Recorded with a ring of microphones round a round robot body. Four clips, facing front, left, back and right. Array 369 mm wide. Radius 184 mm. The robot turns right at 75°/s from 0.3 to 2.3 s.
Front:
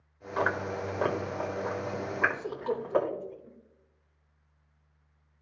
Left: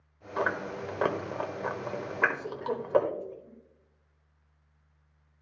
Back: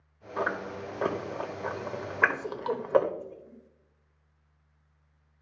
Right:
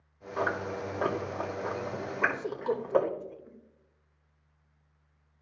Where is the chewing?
20° left, 1.2 m; by 3.1 s 165° left, 1.2 m.